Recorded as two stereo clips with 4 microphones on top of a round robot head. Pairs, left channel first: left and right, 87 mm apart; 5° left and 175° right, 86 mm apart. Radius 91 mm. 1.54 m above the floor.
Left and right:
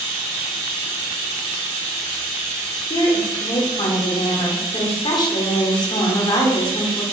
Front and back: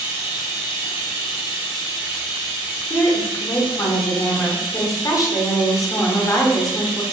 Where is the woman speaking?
55° left, 0.9 m.